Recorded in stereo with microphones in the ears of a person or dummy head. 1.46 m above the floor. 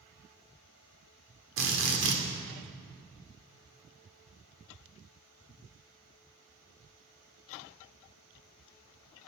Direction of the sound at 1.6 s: 70° right (ahead or behind).